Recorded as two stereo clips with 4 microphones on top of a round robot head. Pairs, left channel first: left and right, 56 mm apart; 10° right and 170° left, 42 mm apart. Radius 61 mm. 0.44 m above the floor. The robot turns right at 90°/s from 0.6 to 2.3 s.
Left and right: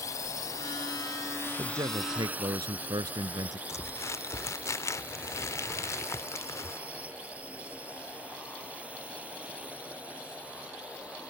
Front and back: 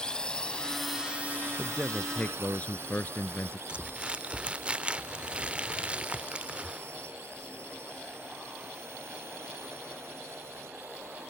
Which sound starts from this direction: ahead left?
A drone, at 0.0 s.